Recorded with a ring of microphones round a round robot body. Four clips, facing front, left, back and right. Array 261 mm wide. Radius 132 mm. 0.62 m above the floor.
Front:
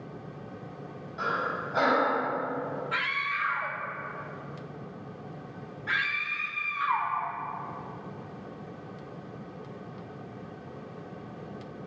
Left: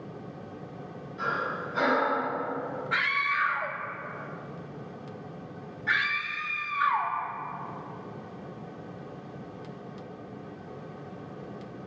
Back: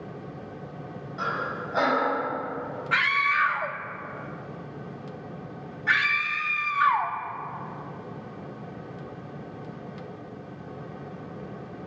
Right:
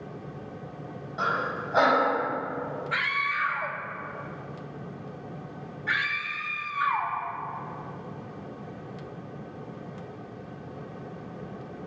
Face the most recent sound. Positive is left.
turn(degrees=175)